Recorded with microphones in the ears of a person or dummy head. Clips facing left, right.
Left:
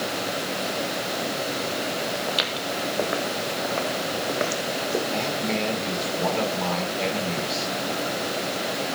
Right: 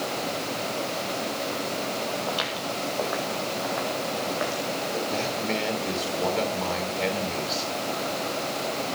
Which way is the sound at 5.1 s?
5° right (ahead or behind).